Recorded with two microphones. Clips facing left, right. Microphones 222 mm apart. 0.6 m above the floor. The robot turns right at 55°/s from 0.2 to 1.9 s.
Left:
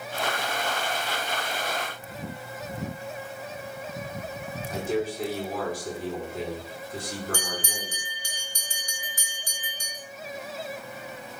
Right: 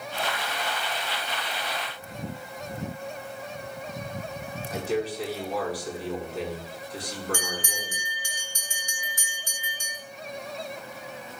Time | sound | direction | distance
4.7 | a man speaking | 45° left (ahead or behind) | 5 m
7.3 | a bell | 35° left (ahead or behind) | 2 m